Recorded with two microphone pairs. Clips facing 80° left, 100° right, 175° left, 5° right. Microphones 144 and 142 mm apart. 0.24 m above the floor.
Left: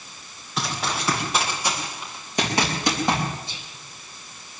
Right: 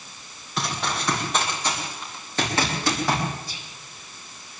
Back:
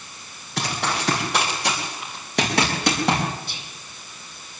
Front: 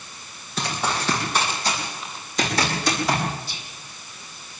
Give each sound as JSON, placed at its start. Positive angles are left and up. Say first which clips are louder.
{"t": 0.6, "sound": "running footsteps", "louder": "even, even", "azimuth_deg": 170, "distance_m": 8.0}
{"t": 3.5, "sound": "whispering", "louder": "even, even", "azimuth_deg": 145, "distance_m": 6.0}